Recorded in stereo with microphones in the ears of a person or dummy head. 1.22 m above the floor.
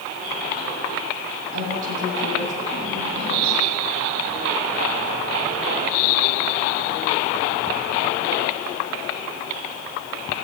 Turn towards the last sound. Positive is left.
turn(degrees=-40)  # may be behind; listen again after turning